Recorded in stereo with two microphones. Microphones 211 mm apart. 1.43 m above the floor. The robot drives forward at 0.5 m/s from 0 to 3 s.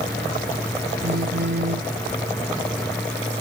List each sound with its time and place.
1.0 s a phone buzzing: 60° right (ahead or behind); by 1.9 s 65° right (ahead or behind)